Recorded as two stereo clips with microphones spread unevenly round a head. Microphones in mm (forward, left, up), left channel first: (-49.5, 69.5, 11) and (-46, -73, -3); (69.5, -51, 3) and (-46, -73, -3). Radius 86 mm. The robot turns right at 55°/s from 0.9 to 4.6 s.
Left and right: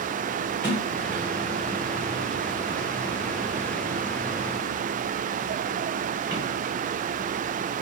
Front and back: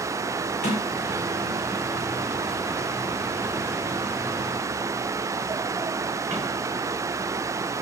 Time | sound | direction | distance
0.6 | a sliding door | 10° left | 6 m